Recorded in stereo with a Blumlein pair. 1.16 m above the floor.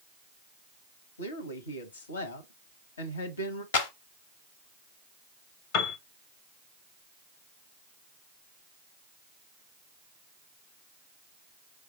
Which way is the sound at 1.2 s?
70° left.